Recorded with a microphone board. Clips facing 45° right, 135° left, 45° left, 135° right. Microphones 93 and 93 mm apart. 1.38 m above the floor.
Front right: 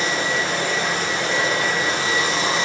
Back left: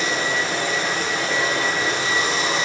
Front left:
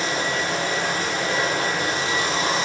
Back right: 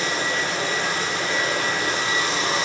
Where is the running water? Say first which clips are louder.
Front right 1 dB, front left 1 dB; 5° right, 2.5 m.